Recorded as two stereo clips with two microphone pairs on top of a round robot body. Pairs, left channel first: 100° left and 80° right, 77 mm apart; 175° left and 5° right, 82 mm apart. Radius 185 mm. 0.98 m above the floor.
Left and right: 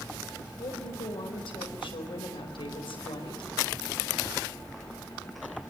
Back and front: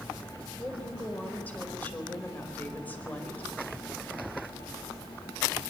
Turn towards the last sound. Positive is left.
turn(degrees=100)